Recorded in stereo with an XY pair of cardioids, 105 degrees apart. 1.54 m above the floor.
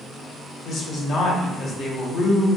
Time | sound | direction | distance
0.7 | a woman speaking | 60° left | 1.4 m